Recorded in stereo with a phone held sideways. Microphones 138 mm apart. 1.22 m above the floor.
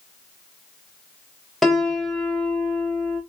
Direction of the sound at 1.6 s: Centre (ahead or behind).